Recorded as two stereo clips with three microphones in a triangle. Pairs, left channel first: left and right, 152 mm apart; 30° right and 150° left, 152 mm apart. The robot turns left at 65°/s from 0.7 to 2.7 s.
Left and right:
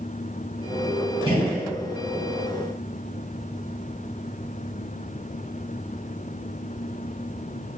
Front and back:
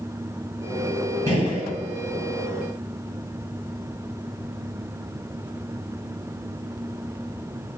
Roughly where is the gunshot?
Ahead left.